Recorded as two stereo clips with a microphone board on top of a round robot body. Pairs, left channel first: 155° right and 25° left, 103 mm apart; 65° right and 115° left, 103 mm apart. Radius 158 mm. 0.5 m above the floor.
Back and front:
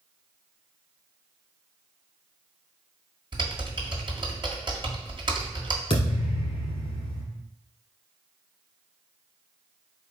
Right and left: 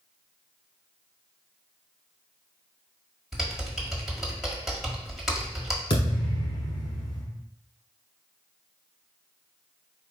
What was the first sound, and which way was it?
Typing on a keyboard, 25° left.